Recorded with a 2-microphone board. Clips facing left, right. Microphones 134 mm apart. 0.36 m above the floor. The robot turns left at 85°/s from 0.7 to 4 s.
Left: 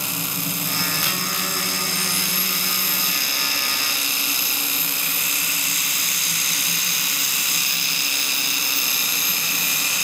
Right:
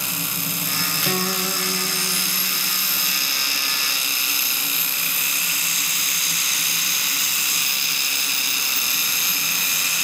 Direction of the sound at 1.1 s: 115° right.